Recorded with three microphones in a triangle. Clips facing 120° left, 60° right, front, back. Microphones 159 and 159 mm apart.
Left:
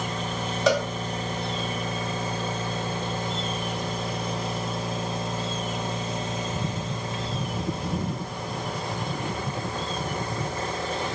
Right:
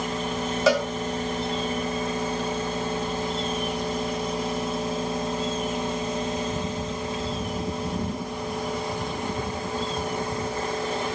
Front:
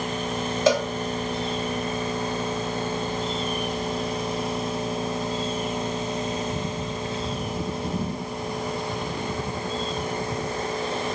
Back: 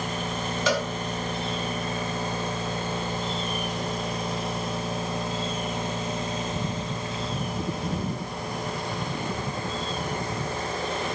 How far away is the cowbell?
About 1.0 m.